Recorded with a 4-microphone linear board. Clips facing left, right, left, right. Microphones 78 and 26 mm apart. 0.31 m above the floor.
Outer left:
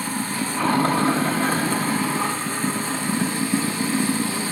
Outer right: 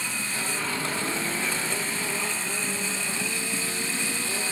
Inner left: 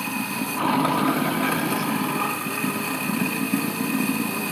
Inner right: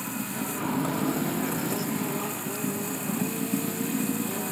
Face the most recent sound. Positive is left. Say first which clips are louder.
# outer left 6 dB, inner left 6 dB
turn(degrees=50)  # may be behind; listen again after turning